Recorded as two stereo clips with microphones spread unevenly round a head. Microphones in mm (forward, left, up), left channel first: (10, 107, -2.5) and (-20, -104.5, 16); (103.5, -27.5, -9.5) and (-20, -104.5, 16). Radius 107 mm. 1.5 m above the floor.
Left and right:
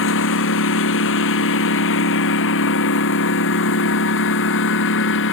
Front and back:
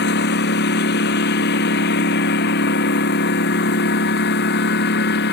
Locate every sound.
0.0 s a lawn mower: 50° left; by 5.3 s 45° left